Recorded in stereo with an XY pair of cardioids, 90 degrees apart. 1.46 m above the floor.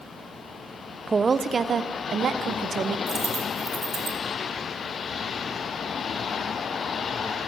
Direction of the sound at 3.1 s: 45° right.